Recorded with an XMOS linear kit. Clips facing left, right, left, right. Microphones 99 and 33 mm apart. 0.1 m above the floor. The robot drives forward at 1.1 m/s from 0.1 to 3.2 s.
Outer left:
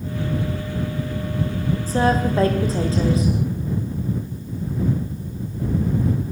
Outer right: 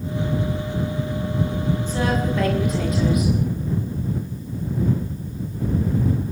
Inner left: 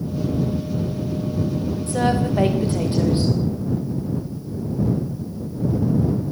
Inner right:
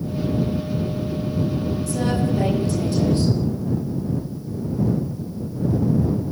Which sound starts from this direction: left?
A woman speaking, at 1.9 s.